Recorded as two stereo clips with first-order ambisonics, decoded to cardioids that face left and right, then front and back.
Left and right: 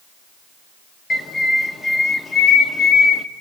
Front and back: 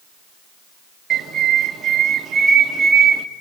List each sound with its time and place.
1.1 s a bird: 145° left, 1.4 m